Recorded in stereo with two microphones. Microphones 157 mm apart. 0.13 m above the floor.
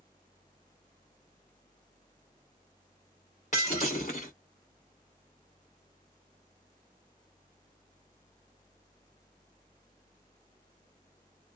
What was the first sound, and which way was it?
Breaking glass, 50° left (ahead or behind).